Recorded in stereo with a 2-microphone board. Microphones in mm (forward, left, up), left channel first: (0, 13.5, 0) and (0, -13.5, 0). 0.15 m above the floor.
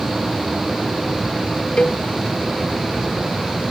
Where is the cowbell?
45° left (ahead or behind).